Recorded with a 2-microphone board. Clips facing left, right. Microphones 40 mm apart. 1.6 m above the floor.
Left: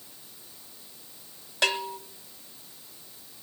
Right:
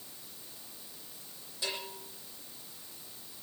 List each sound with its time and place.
1.6 s a bell: 70° left (ahead or behind), 1.2 m